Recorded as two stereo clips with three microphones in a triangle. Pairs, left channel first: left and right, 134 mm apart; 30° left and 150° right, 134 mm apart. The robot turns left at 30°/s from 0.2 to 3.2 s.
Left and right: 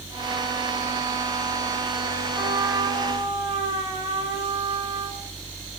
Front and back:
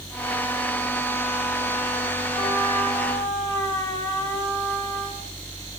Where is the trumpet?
15° right, 3.5 m; by 5.3 s 40° right, 3.5 m.